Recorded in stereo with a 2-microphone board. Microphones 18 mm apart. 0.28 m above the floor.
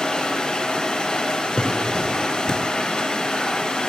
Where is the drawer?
55° left (ahead or behind), 1.9 m.